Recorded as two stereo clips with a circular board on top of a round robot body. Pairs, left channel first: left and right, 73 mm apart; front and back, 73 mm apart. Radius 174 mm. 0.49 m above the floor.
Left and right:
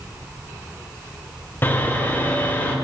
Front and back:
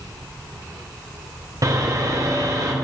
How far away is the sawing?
About 2.5 m.